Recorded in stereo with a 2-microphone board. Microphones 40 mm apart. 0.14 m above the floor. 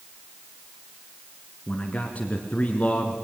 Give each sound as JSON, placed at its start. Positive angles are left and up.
{"t": 1.7, "sound": "a man speaking", "side_deg": 35, "distance_m": 1.8}